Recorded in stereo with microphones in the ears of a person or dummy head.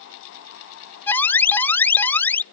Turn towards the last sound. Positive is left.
turn(degrees=15)  # may be behind; listen again after turning